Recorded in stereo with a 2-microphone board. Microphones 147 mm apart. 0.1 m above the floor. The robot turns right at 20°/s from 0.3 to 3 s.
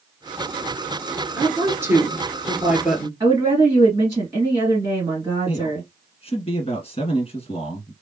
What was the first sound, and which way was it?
A woman speaking, 20° right (ahead or behind).